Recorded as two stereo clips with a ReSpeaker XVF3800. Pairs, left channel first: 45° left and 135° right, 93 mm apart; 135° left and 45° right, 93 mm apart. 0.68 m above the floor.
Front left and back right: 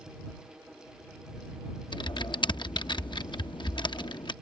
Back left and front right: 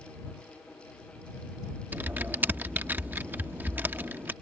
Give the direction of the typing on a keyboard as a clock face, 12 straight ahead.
11 o'clock.